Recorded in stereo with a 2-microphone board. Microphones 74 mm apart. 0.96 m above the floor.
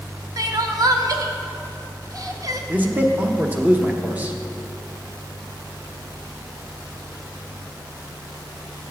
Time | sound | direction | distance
0.4 | crying | 50° right (ahead or behind) | 0.6 m
2.7 | a man speaking | 20° right (ahead or behind) | 0.9 m